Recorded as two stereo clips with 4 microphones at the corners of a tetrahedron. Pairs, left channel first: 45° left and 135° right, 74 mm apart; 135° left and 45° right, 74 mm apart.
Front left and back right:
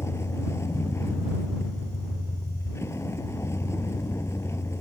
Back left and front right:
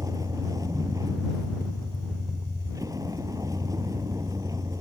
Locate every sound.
0.0 s a vehicle: 5° right